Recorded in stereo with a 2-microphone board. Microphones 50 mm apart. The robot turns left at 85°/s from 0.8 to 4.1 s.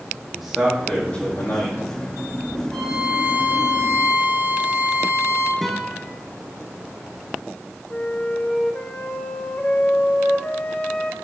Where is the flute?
35° left (ahead or behind), 1.1 m.